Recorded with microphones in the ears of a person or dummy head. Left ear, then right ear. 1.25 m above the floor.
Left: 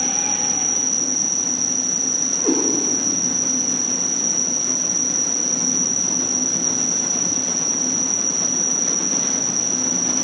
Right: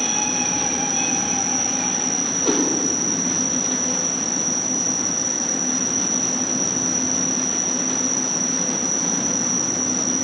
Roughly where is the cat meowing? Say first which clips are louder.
Even; left.